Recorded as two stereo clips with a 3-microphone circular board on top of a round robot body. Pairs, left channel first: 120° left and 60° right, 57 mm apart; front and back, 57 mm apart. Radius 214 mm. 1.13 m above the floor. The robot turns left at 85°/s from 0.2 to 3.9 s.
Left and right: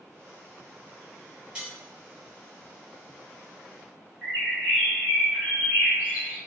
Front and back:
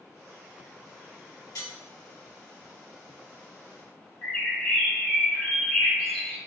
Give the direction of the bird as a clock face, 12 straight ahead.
11 o'clock.